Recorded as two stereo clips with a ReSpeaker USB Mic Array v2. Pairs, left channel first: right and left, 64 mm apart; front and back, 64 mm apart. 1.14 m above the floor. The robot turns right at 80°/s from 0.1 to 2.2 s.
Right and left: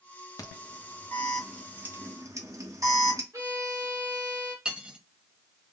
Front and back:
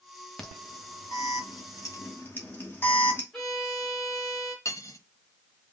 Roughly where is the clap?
No clap in this recording.